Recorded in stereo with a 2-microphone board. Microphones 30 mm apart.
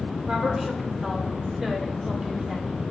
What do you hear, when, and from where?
0.3 s a woman speaking: 25° right (ahead or behind), 3 m; by 2.7 s 10° right (ahead or behind), 1.8 m